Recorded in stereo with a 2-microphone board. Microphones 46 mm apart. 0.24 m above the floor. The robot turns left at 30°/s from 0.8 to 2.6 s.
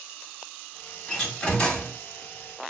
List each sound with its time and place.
1.1 s a door slam: 15° left (ahead or behind), 1.2 m; by 2.0 s 35° left (ahead or behind), 1.2 m